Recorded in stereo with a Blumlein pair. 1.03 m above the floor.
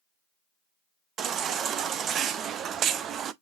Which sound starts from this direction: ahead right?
A baby crying, at 1.2 s.